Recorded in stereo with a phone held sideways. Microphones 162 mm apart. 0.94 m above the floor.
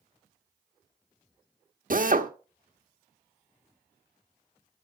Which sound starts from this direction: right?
A drill, at 1.9 s.